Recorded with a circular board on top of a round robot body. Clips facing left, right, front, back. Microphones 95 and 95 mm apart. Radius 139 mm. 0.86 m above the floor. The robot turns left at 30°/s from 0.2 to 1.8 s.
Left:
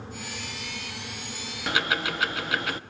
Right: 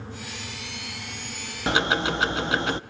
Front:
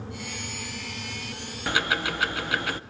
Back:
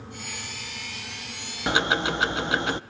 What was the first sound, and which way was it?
Ticking, 125° right.